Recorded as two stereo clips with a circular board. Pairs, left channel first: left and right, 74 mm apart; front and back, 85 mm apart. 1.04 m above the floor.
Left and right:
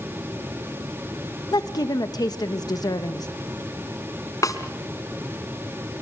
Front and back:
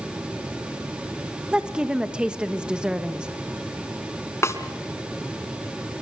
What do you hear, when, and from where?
1.5 s a woman speaking: 105° left, 1.2 m
4.4 s a snare drum: 55° left, 2 m